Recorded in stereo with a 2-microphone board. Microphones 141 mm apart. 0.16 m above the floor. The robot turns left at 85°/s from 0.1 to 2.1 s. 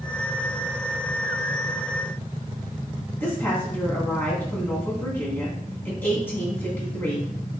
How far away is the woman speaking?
About 1.5 m.